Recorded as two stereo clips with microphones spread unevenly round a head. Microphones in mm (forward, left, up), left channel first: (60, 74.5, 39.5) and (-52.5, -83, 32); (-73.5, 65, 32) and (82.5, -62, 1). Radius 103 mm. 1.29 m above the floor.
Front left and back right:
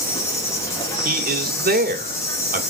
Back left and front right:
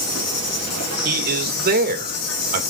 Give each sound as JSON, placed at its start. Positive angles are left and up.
{"t": 0.0, "sound": "an insect", "azimuth_deg": 130, "distance_m": 3.0}
{"t": 1.1, "sound": "a man speaking", "azimuth_deg": -80, "distance_m": 2.5}